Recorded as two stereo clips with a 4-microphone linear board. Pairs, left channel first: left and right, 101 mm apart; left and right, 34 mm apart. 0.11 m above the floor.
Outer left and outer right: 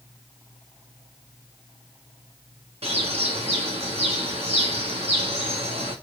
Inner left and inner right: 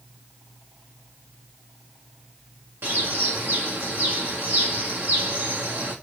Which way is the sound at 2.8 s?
85° right.